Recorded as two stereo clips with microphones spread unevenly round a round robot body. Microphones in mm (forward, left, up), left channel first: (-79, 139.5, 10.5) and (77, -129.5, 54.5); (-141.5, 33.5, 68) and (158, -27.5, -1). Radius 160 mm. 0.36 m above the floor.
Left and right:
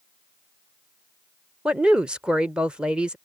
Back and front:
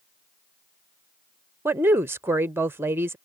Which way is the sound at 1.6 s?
40° left.